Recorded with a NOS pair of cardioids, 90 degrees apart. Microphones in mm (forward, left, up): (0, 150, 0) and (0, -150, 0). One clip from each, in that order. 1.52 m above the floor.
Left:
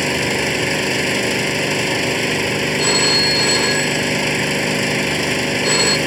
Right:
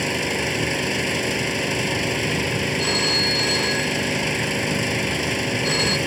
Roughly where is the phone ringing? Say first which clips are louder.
Left 5 dB; ahead left.